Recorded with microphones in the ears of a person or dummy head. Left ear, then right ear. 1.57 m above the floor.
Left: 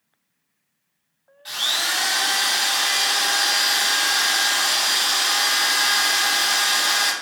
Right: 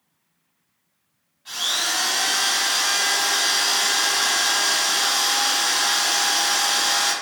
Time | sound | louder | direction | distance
1.4 | a drill | left 1 dB | 40° left (ahead or behind) | 0.5 m